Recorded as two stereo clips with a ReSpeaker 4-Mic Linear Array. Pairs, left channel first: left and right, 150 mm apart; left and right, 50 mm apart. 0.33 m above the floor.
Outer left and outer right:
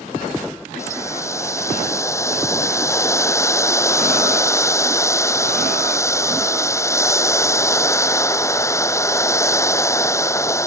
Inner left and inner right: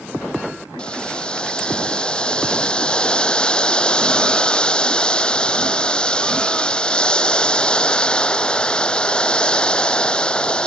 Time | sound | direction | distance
0.8 | boiling | 20° left (ahead or behind) | ?